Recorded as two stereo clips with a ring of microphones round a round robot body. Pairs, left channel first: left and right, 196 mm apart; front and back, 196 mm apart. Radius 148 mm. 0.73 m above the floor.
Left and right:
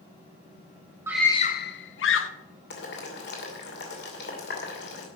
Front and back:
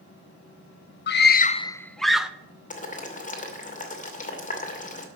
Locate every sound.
1.1 s a scream: 15° right, 0.7 m; by 2.3 s 95° left, 1.4 m
2.7 s boiling: 50° left, 2.5 m